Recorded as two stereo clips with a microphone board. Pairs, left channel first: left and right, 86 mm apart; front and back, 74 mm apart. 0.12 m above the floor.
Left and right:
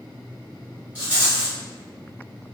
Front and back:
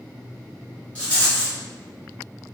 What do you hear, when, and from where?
0.9 s a rattle: 50° right, 1.4 m